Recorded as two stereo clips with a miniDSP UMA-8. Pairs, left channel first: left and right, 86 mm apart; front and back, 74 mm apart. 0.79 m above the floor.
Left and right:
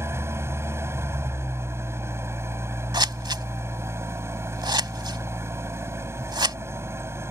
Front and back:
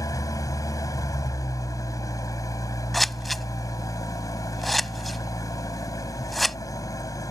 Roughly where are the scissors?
Right.